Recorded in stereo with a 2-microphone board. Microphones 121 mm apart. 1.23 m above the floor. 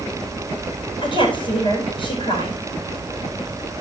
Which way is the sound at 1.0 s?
45° left (ahead or behind).